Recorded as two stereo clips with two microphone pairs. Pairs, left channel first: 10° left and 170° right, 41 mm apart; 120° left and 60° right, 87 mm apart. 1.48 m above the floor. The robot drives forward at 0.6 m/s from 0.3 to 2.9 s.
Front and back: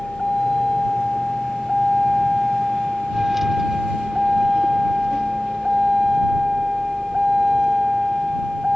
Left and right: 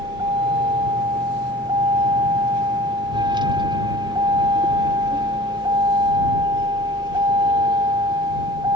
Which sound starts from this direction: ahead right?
A vehicle, at 0.0 s.